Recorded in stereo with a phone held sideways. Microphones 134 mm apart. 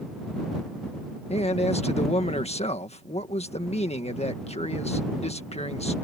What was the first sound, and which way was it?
A man speaking, 50° left (ahead or behind).